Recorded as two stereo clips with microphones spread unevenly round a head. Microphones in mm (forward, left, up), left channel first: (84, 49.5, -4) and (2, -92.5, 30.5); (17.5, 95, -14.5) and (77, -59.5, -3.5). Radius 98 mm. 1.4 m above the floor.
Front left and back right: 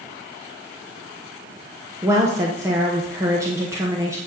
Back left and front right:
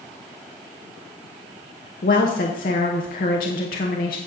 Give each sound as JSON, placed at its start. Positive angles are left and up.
{"t": 2.0, "sound": "a woman speaking", "azimuth_deg": 165, "distance_m": 0.9}